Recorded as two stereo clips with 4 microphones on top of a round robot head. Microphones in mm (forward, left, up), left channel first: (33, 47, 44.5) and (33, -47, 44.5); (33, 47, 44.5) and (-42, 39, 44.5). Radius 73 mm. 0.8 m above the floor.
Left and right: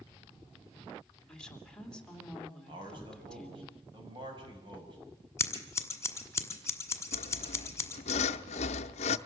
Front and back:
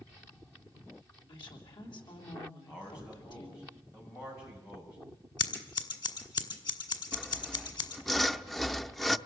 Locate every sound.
1.3 s a woman speaking: 10° left, 3 m
2.7 s a man speaking: 55° right, 6.5 m
5.4 s scissors: 30° left, 1.8 m
7.1 s sawing: 95° left, 0.5 m